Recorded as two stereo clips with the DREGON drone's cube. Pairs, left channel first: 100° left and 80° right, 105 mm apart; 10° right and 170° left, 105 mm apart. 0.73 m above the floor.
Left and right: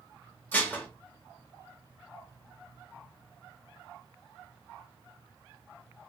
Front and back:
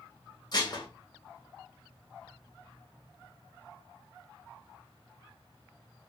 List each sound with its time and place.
0.5 s dishes clattering: 30° left, 0.6 m